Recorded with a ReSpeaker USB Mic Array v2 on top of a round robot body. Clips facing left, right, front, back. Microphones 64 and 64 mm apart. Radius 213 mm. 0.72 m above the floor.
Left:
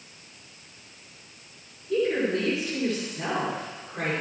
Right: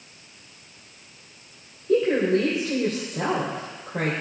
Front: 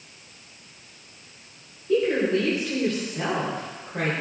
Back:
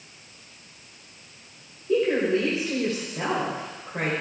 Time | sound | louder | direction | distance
1.9 | a woman speaking | right 4 dB, even | 105° right | 4 m